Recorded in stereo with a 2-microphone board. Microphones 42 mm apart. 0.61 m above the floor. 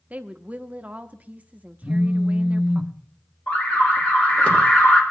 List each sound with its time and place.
0.1 s a woman speaking: 35° right (ahead or behind), 0.8 m
1.8 s a phone buzzing: 5° left (ahead or behind), 0.8 m
3.5 s an alarm: 40° left (ahead or behind), 2 m